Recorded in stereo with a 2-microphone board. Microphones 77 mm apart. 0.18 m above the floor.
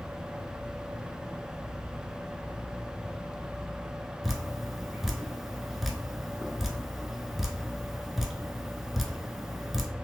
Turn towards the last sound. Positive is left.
turn(degrees=-5)  # may be behind; listen again after turning